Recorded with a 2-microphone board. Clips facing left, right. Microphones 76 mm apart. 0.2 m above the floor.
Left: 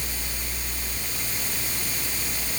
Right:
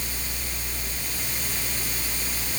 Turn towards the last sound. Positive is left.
No sound to turn to.